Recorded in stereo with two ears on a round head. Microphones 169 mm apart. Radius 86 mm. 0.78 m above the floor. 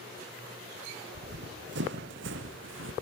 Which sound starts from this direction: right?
Running footsteps, at 1.1 s.